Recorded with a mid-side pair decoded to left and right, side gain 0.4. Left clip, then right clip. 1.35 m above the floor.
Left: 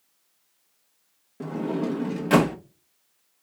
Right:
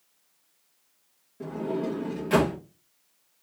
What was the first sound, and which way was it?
A sliding door, 60° left.